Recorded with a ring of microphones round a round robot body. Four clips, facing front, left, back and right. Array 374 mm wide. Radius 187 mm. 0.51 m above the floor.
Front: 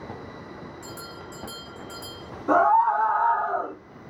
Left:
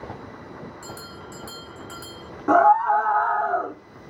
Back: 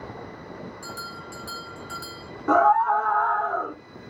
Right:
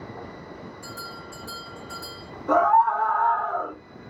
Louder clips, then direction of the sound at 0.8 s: Even, back 2 dB; 105° left.